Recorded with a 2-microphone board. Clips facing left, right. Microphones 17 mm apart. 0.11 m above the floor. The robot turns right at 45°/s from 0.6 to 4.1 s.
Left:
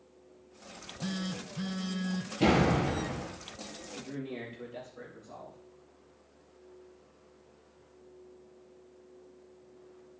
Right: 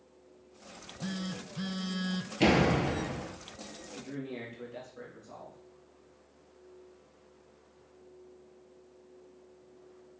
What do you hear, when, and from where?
0.7 s a phone buzzing: 150° left, 0.8 m; by 2.3 s 140° right, 0.8 m
2.4 s a door slam: 55° right, 2 m; by 3.3 s 15° right, 2 m
4.0 s a man speaking: 25° right (ahead or behind), 6 m; by 5.6 s 15° right (ahead or behind), 6 m